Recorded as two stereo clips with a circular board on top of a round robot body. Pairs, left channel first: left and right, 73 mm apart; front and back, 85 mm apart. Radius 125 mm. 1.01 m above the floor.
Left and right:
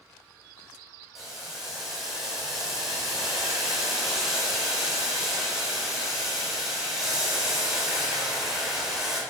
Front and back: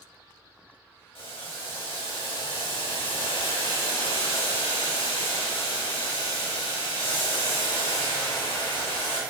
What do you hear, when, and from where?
1.1 s boiling: 5° right, 5 m